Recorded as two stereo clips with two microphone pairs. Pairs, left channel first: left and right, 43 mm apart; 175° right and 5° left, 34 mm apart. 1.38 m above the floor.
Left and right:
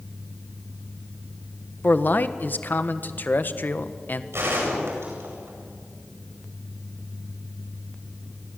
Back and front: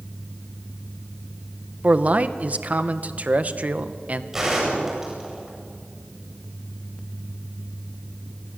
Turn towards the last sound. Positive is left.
turn(degrees=-70)